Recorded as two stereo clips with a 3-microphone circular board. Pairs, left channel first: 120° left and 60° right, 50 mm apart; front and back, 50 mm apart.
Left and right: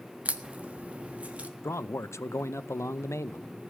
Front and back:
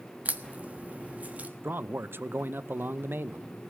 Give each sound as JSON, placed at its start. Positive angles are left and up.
{"t": 0.2, "sound": "a crack", "azimuth_deg": -120, "distance_m": 1.3}
{"t": 1.6, "sound": "a man speaking", "azimuth_deg": 140, "distance_m": 0.7}